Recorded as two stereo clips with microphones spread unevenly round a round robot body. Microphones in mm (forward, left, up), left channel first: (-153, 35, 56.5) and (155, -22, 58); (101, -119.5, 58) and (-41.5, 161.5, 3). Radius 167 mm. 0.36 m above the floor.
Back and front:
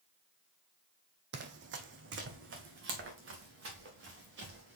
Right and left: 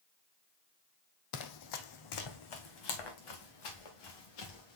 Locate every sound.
1.3 s running footsteps: 65° right, 0.7 m